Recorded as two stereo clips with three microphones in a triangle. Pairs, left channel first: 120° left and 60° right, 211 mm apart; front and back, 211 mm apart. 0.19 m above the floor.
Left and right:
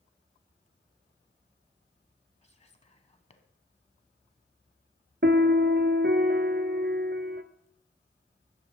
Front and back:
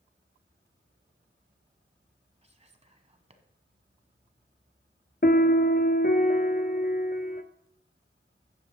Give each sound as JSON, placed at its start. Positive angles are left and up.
{"t": 2.4, "sound": "whispering", "azimuth_deg": 150, "distance_m": 1.2}
{"t": 5.2, "sound": "a piano", "azimuth_deg": -35, "distance_m": 0.6}